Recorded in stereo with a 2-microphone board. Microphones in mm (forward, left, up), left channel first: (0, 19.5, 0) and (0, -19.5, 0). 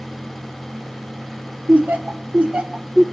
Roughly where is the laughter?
Right.